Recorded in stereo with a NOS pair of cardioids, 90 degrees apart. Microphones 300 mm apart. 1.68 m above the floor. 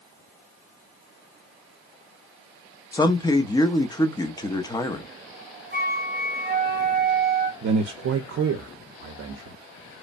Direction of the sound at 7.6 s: 55° right.